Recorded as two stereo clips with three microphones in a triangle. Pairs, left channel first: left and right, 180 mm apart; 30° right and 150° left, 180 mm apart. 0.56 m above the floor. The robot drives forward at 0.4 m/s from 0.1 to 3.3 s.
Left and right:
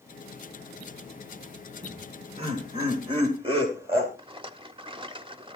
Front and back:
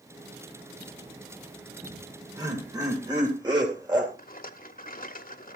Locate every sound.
1.8 s laughter: 140° right, 2.5 m; by 4.1 s 145° right, 3 m
4.2 s a rattle: 35° right, 1.1 m